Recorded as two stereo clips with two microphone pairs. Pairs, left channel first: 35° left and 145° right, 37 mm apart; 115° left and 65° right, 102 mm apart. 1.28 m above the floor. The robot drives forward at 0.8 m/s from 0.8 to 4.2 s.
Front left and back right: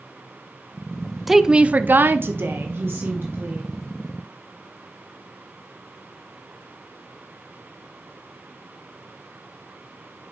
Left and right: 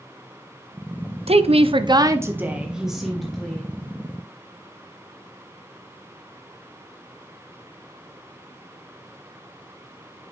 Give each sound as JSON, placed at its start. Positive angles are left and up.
{"t": 1.3, "sound": "a woman speaking", "azimuth_deg": -60, "distance_m": 0.6}